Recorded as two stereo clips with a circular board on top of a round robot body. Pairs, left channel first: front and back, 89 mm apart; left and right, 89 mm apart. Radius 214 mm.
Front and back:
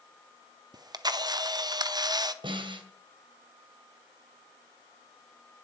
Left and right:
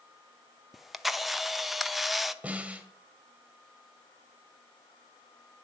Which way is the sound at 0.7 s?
175° right.